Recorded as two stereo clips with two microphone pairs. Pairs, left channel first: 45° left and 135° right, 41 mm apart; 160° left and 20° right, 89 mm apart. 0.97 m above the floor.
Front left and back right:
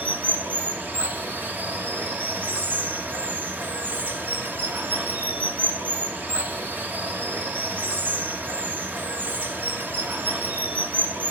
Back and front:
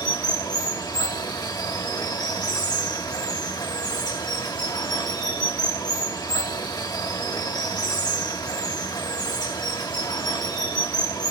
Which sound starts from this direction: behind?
Running water, at 0.0 s.